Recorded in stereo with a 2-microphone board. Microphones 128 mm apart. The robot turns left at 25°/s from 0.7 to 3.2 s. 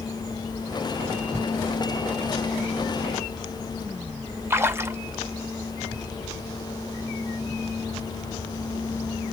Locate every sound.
4.5 s a splash: 20° right (ahead or behind), 0.5 m